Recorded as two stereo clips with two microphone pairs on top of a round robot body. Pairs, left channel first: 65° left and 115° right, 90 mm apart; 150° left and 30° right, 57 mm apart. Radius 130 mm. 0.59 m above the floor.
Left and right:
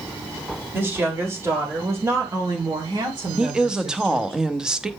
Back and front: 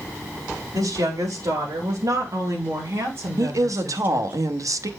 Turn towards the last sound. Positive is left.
turn(degrees=-35)